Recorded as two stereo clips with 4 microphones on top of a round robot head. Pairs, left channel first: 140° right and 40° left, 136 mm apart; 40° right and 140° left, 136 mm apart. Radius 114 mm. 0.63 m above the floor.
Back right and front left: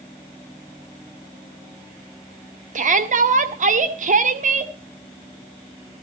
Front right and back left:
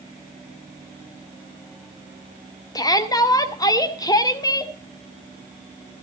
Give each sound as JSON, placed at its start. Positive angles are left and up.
{"t": 2.8, "sound": "a shout", "azimuth_deg": 20, "distance_m": 2.0}